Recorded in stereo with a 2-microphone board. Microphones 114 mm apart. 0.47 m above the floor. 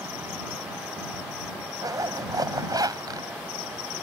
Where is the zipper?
35° right (ahead or behind).